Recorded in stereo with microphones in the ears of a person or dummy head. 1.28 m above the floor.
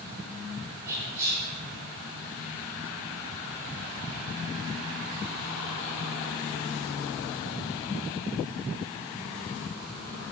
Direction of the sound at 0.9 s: 15° right (ahead or behind).